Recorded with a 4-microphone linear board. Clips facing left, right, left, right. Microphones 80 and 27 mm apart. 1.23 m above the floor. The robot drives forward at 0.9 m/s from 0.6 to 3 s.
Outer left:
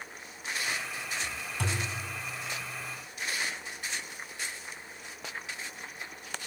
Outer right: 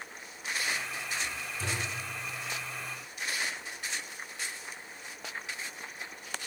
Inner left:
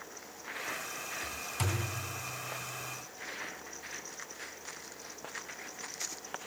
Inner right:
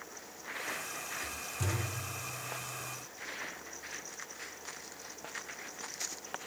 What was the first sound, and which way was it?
A thud, 65° left (ahead or behind).